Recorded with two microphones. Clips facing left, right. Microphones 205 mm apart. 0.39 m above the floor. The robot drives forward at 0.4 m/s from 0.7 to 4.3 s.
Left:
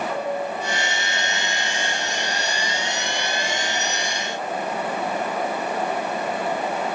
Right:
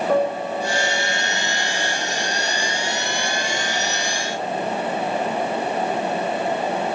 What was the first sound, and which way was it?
A piano, 55° right (ahead or behind).